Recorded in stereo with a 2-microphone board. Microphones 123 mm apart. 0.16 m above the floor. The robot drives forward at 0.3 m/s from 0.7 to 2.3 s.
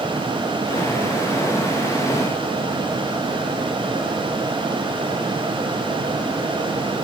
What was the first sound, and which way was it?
Only background noise.